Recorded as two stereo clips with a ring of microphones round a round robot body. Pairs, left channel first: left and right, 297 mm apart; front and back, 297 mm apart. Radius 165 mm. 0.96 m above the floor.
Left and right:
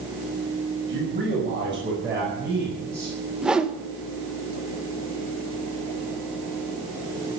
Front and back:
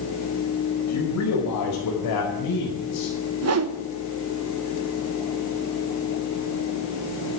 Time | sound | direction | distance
0.9 | a man speaking | 25° right | 6 m
3.4 | a whoosh | 175° right | 1.2 m